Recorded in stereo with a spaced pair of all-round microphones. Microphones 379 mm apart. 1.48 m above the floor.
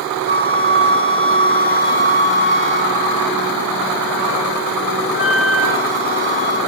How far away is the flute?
About 0.6 m.